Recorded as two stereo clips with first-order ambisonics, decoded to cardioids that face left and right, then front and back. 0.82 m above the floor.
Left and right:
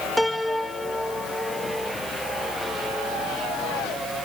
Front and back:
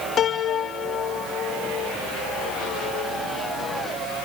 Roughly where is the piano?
Ahead.